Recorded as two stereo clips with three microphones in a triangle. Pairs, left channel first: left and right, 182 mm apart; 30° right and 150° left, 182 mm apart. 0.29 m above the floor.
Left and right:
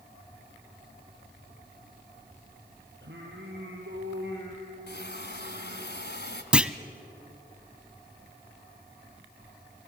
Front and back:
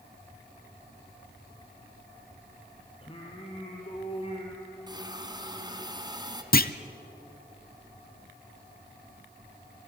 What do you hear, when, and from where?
3.0 s singing: 90° right, 3.5 m
4.9 s a hiss: 85° left, 1.7 m
6.5 s a clunk: 5° right, 0.7 m